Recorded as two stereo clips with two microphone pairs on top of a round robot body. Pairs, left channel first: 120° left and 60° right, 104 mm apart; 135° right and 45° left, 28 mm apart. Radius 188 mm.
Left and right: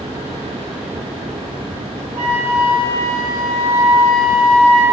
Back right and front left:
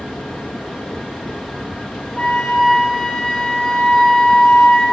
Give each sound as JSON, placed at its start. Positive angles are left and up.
{"t": 2.1, "sound": "a flute", "azimuth_deg": -85, "distance_m": 10.0}